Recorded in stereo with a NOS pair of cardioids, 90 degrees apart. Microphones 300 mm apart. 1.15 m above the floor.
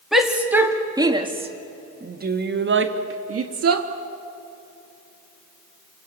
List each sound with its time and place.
0.1 s a shout: straight ahead, 2.5 m; by 3.9 s 55° right, 2.5 m